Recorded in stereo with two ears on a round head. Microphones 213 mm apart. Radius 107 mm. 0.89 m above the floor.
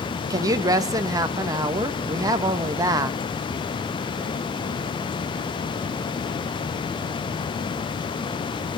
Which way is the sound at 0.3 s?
15° right (ahead or behind).